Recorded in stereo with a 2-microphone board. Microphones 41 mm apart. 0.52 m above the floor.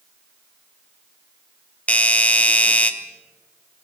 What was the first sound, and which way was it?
A doorbell, 35° left (ahead or behind).